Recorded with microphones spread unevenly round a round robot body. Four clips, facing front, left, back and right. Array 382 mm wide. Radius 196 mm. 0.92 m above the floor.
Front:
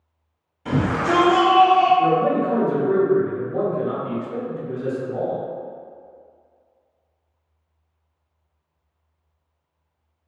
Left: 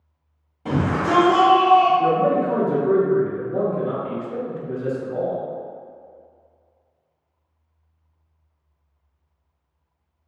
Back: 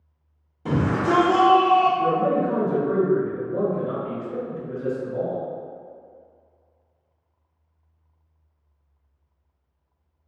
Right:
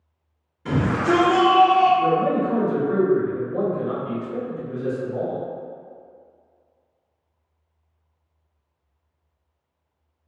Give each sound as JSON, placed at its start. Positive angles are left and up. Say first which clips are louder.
{"t": 0.7, "sound": "a shout", "louder": "right 1 dB, front 1 dB", "azimuth_deg": 170, "distance_m": 1.2}
{"t": 2.0, "sound": "a man speaking", "louder": "left 1 dB, front 2 dB", "azimuth_deg": 80, "distance_m": 0.9}